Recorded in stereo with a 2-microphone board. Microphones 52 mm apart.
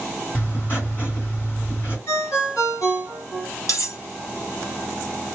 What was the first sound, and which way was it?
Writing, 35° left (ahead or behind).